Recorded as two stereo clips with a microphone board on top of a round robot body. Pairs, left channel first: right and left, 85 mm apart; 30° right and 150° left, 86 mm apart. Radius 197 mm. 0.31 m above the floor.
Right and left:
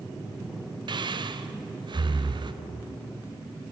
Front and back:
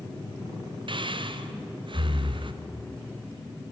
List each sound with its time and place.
0.9 s breathing: 125° left, 1.0 m